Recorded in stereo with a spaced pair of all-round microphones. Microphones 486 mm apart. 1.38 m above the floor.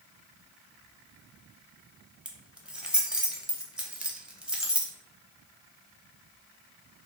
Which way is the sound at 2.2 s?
Centre (ahead or behind).